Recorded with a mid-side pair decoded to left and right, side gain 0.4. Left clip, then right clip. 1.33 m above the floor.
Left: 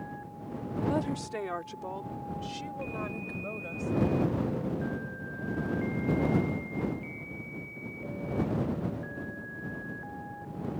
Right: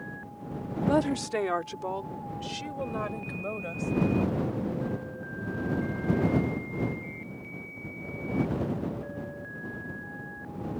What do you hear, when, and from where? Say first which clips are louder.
0.9 s a woman speaking: right 7 dB; 55° right; by 3.9 s 35° right